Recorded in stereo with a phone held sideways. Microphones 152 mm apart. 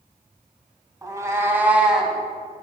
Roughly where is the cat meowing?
Right.